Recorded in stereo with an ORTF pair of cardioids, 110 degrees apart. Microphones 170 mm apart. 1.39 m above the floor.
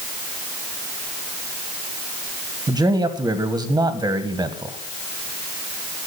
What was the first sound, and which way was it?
A man speaking, 20° right.